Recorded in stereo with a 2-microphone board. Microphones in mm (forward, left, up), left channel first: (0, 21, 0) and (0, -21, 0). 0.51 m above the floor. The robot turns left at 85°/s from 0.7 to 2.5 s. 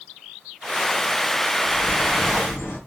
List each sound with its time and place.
1.6 s a bird: 145° left, 5 m; by 2.8 s 70° left, 5 m